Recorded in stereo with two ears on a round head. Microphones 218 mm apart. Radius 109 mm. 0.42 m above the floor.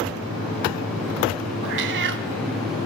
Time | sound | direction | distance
1.6 | a cat meowing | 50° right (ahead or behind) | 1.2 m